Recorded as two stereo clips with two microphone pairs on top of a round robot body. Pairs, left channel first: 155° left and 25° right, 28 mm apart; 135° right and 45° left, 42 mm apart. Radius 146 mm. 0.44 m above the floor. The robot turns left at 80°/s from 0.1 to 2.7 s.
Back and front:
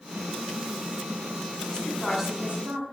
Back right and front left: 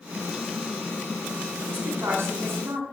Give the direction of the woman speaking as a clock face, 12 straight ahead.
9 o'clock.